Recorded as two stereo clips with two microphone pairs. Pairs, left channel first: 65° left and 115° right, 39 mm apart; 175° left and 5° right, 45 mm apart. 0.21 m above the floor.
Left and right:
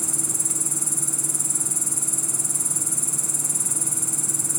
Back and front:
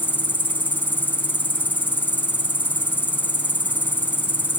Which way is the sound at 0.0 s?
155° left.